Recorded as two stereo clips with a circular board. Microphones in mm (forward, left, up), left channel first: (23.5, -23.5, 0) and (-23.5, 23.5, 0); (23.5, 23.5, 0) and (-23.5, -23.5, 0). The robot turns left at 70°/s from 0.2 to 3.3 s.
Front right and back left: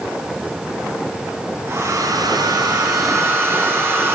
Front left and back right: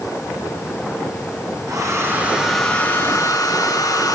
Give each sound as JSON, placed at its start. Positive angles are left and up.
{"t": 1.7, "sound": "a hair dryer", "azimuth_deg": -165, "distance_m": 3.5}